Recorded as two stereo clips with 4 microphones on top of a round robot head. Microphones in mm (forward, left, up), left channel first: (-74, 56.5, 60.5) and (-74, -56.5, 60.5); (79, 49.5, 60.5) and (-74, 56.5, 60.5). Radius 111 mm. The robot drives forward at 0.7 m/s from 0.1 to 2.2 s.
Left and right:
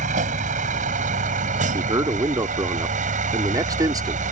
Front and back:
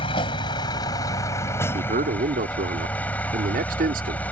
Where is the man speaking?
140° right; by 4.2 s 145° right.